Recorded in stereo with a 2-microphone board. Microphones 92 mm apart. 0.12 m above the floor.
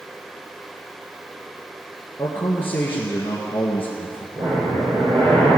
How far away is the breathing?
About 4 m.